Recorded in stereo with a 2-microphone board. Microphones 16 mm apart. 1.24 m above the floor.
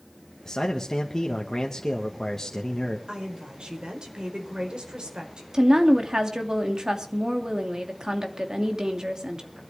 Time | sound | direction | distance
0.5 | a man speaking | 30° left (ahead or behind) | 1.7 m
3.1 | a woman speaking | 70° right (ahead or behind) | 4 m
5.5 | a woman speaking | 45° right (ahead or behind) | 2.5 m